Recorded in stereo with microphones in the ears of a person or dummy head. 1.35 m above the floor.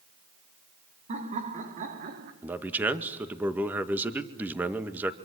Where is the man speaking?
10° right (ahead or behind), 1.9 m.